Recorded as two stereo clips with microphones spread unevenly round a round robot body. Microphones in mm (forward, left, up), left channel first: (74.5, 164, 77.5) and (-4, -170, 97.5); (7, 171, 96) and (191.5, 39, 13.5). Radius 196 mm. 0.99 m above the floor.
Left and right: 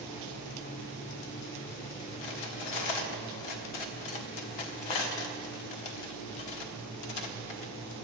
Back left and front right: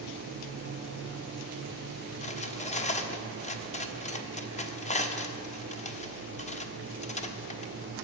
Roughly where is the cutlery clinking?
Left.